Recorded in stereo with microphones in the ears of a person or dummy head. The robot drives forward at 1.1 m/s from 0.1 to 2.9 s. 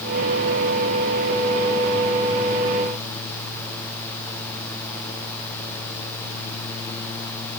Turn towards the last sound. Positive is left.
No sound to turn to.